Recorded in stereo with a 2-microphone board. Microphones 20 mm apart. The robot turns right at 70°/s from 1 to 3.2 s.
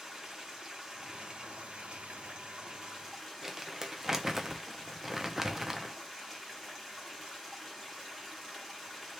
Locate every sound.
0.0 s running water: 155° right, 1.1 m; by 9.2 s straight ahead, 1.1 m
3.4 s crumpling: 15° right (ahead or behind), 0.5 m